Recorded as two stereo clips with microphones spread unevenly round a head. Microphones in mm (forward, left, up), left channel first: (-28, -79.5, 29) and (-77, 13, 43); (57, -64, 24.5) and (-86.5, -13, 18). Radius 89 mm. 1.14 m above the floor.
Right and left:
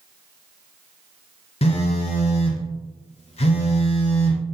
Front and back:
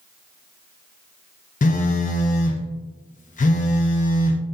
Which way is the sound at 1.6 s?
55° right.